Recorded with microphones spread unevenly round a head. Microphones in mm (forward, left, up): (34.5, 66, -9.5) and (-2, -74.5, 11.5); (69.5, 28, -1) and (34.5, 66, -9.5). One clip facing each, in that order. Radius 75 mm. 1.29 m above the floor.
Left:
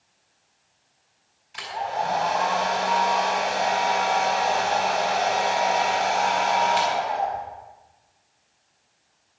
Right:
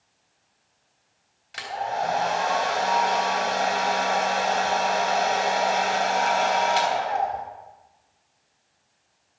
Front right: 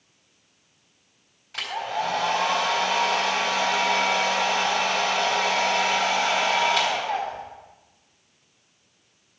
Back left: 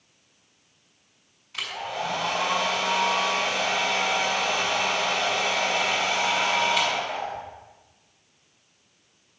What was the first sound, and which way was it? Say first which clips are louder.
A hair dryer: even, front right 3 dB; 95° right.